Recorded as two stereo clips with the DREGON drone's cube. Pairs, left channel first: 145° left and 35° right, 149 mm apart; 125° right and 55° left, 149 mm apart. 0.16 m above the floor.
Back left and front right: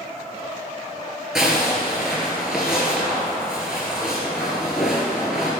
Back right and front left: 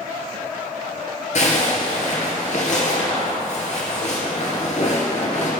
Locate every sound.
1.4 s a zipper: 120° right, 2 m